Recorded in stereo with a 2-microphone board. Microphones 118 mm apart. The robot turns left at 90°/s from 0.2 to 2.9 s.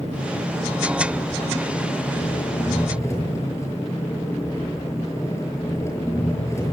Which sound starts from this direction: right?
An engine running, at 0.0 s.